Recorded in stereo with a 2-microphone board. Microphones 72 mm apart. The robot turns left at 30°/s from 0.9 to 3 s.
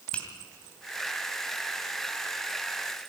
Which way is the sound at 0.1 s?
15° left (ahead or behind).